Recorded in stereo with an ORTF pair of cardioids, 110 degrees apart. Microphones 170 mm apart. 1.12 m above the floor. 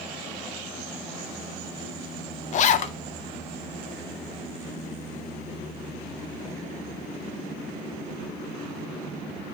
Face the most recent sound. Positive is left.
turn(degrees=50)